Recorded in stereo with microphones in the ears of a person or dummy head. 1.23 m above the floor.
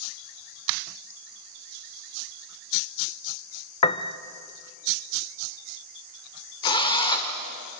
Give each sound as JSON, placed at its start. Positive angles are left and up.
{"t": 3.8, "sound": "a piano", "side_deg": 30, "distance_m": 0.5}
{"t": 6.6, "sound": "a drill", "side_deg": 20, "distance_m": 1.8}